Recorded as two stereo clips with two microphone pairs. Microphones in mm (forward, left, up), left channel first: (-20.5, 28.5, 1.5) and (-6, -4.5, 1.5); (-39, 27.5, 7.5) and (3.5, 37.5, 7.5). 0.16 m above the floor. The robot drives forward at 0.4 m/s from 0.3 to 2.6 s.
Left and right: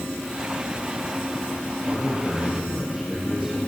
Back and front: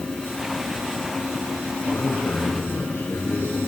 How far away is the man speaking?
About 5.5 m.